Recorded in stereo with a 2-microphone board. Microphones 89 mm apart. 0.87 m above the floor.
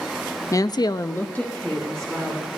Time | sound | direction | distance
0.5 | a woman speaking | 35° left (ahead or behind) | 0.6 m